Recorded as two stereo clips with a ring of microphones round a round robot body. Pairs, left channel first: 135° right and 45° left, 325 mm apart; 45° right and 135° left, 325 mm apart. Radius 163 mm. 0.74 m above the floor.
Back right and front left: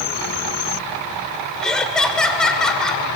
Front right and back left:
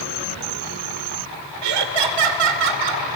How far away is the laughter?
About 2.5 m.